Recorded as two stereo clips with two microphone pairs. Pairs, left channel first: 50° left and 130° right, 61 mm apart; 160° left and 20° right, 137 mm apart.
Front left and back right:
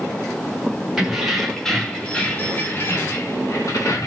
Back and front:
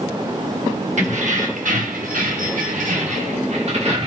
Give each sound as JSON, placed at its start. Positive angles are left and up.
{"t": 1.0, "sound": "keys jangling", "azimuth_deg": -45, "distance_m": 1.3}